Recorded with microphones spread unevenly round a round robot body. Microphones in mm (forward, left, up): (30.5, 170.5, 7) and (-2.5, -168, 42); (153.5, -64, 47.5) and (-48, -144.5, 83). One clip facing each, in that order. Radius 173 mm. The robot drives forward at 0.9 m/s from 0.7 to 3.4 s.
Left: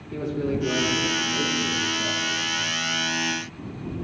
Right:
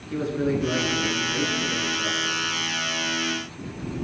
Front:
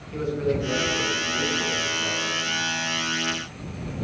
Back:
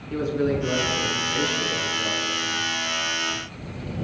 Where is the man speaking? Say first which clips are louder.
Right 2 dB, back 2 dB; 140° right, 8 m; by 2.7 s 150° right, 9.5 m.